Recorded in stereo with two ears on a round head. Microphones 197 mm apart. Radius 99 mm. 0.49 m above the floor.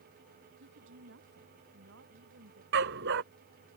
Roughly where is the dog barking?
Right.